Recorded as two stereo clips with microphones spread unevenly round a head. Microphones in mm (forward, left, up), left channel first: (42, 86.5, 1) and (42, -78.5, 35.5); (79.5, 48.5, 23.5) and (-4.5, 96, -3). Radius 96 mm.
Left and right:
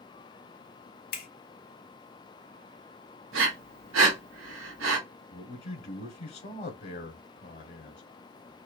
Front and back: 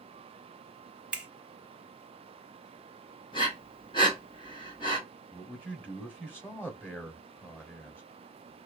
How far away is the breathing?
About 0.8 m.